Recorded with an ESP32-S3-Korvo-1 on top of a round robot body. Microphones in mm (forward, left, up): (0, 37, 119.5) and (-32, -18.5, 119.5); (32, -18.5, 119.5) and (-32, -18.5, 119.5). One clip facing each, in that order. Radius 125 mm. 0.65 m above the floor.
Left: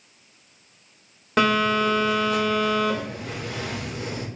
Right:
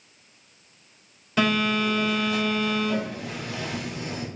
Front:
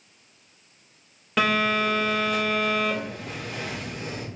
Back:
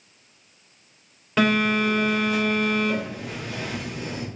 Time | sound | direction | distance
1.4 | a phone buzzing | 90° left | 3 m